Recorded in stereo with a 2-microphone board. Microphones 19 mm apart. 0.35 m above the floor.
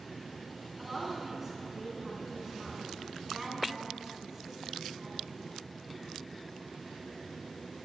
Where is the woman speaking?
15° right (ahead or behind), 3.5 m.